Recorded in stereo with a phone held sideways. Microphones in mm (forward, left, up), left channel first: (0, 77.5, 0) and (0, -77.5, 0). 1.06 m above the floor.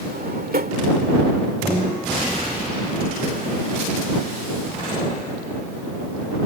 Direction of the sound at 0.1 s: 80° right.